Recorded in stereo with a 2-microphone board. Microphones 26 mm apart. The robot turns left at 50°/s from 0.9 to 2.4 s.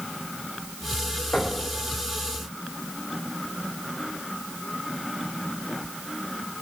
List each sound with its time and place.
1.3 s knocking: 80° left, 6.5 m; by 1.6 s 65° left (ahead or behind), 6.5 m